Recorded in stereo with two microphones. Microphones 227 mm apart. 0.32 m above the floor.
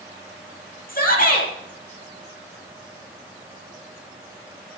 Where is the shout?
35° left (ahead or behind), 8 m.